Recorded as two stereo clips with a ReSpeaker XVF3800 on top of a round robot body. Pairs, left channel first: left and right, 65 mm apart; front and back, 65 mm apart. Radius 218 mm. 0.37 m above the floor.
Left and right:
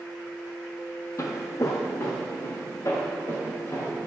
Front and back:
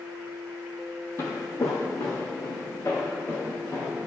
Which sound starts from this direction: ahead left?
Footsteps, at 1.2 s.